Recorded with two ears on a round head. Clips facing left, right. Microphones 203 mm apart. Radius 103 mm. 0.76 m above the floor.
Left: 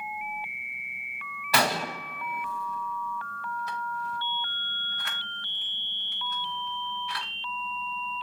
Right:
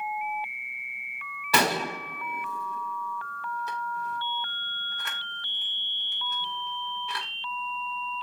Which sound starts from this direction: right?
A gunshot, at 1.5 s.